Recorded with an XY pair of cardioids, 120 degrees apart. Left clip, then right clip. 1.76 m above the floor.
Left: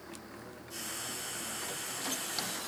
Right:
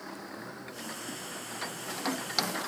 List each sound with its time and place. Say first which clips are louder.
0.7 s frying: left 2 dB; 60° left, 6.5 m